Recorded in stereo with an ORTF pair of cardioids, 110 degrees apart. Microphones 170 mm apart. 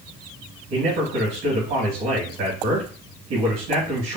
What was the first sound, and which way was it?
A man speaking, 70° right.